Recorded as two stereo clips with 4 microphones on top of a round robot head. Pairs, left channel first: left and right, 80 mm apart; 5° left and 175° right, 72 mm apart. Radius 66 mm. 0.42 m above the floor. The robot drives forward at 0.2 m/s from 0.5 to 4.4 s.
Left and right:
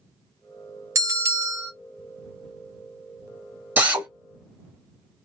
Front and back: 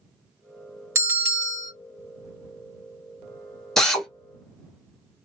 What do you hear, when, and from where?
0.9 s a bell: 130° right, 1.0 m; by 1.7 s 135° right, 1.1 m
3.8 s a drill: 70° right, 1.2 m; by 4.1 s 80° right, 1.2 m